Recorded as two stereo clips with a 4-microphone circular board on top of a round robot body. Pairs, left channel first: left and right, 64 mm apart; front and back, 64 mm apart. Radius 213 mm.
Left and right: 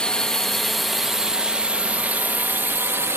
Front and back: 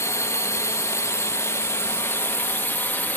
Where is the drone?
15° left; by 3.2 s 55° right.